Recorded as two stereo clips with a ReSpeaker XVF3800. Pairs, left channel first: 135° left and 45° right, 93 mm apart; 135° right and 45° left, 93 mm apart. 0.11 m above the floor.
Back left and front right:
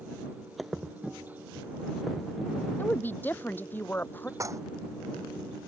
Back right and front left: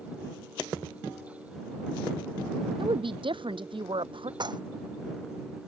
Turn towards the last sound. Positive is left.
turn(degrees=10)